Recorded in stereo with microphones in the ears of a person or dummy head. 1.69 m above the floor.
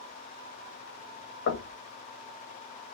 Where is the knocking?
60° left (ahead or behind), 1.4 m.